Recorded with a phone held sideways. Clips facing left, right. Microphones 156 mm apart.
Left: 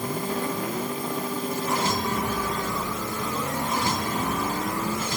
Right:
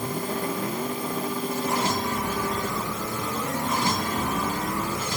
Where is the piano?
No piano in this recording.